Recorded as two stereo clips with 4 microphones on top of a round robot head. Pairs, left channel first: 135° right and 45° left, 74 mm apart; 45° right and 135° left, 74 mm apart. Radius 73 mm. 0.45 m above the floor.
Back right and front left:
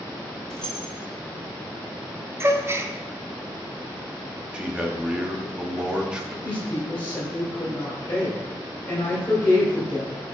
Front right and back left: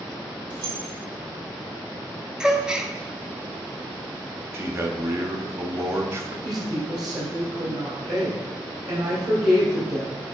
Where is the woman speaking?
160° left, 2.5 m.